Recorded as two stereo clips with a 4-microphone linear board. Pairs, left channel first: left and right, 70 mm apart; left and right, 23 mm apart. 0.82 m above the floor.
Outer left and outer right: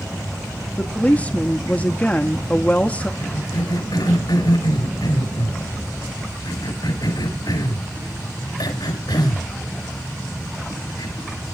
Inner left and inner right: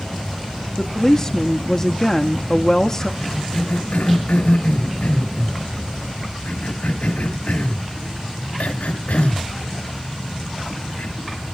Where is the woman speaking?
20° left (ahead or behind), 0.8 m.